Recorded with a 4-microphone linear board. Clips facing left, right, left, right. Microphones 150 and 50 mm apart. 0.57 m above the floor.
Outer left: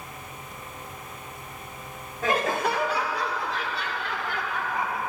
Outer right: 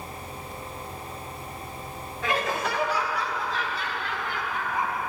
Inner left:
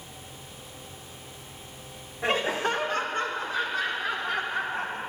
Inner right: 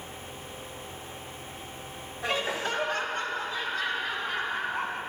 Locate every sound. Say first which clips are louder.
2.2 s laughter: outer left 3 dB, inner left 4 dB; 45° left (ahead or behind), 1.5 m; by 5.0 s 70° left (ahead or behind), 4 m